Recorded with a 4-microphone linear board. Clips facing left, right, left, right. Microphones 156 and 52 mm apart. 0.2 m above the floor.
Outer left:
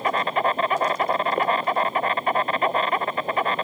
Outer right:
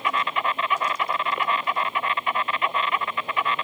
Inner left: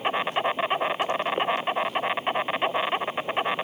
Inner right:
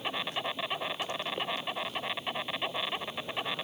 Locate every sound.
0.0 s an insect: 40° left (ahead or behind)